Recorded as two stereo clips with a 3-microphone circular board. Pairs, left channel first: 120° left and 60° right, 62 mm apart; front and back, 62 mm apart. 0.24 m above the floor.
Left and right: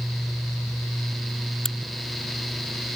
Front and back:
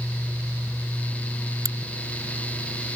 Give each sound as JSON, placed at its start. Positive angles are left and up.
{"t": 1.6, "sound": "a crack", "azimuth_deg": -160}